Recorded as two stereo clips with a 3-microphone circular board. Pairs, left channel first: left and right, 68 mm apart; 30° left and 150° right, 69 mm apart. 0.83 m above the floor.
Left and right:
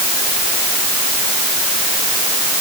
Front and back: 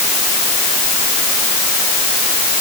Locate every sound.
Only background noise.